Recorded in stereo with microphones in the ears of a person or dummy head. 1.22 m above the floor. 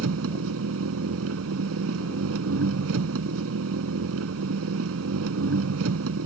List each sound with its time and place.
0.0 s an engine running: 85° right